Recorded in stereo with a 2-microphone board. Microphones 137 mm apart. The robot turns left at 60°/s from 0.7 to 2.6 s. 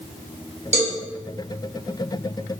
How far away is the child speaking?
No child speaking in this recording.